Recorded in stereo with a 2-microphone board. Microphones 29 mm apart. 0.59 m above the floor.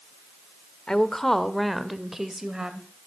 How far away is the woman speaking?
About 1.5 m.